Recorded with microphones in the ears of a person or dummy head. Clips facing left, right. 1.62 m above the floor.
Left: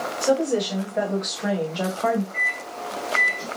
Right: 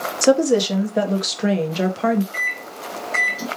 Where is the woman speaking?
70° right (ahead or behind), 1.3 m; by 2.2 s 20° right (ahead or behind), 1.3 m.